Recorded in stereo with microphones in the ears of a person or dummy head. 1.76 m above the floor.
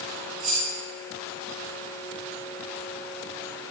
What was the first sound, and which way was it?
Keys jangling, 35° right (ahead or behind).